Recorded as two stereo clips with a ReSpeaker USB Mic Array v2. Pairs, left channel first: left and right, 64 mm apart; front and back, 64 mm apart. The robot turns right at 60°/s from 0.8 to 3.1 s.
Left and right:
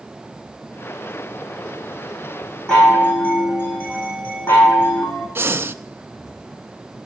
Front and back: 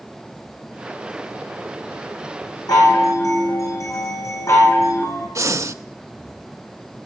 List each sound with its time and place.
2.7 s a chime: 10° left, 4.5 m; by 5.2 s 35° left, 4.5 m
5.3 s breathing: 140° right, 0.5 m